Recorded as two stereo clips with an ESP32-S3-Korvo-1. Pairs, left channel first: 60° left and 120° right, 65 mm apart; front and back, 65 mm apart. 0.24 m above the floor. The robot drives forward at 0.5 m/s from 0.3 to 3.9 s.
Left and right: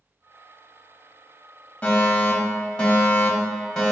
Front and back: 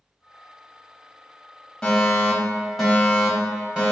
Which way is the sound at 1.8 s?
55° left.